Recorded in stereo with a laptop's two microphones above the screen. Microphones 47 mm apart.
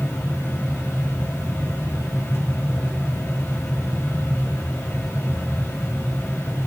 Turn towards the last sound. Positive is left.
turn(degrees=70)  # may be behind; listen again after turning